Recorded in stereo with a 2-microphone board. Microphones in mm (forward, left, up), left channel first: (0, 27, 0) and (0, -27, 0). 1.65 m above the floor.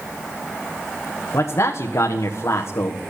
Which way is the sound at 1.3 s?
65° left (ahead or behind).